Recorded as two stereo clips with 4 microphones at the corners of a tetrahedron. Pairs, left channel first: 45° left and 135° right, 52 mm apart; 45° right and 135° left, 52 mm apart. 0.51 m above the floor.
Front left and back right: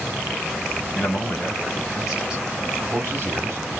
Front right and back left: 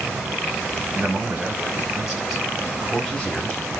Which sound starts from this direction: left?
A man speaking, at 0.9 s.